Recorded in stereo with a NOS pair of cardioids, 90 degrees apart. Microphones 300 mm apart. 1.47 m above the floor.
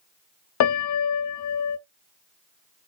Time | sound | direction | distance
0.6 | a piano | 65° left | 0.7 m